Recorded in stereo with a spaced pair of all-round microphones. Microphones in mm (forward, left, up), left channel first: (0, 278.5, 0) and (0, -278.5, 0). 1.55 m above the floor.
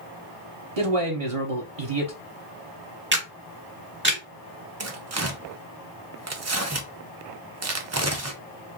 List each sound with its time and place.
0.8 s a man speaking: 75° right (ahead or behind), 0.8 m
3.1 s a camera shutter: 20° right (ahead or behind), 1.2 m
4.8 s tearing paper: 30° right (ahead or behind), 0.5 m